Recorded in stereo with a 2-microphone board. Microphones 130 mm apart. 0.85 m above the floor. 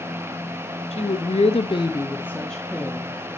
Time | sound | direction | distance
0.9 | a woman speaking | 50° left (ahead or behind) | 0.9 m